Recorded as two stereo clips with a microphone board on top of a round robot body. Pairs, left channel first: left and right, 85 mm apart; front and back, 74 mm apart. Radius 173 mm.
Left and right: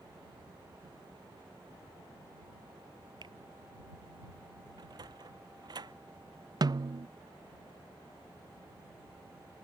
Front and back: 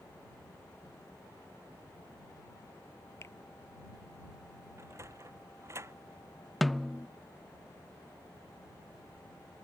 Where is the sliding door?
130° right.